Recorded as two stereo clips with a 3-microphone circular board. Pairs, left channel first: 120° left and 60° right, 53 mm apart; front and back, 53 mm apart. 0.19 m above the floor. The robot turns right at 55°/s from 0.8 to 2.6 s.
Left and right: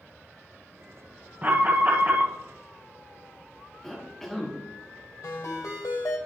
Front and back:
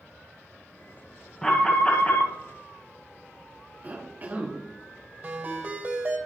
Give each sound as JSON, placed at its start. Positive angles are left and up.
{"t": 1.4, "sound": "an alarm", "azimuth_deg": -75, "distance_m": 1.4}
{"t": 3.8, "sound": "a cough", "azimuth_deg": -160, "distance_m": 1.2}
{"t": 5.2, "sound": "a ringtone", "azimuth_deg": 125, "distance_m": 2.5}